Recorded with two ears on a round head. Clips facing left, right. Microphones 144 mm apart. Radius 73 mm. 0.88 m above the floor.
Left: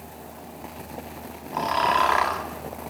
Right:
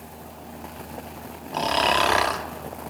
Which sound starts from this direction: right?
Snoring, at 1.5 s.